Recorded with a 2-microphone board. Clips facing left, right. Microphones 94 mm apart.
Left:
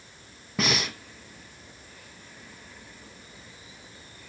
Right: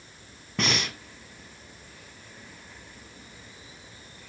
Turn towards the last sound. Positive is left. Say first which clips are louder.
# left 1 dB
turn(degrees=5)  # may be behind; listen again after turning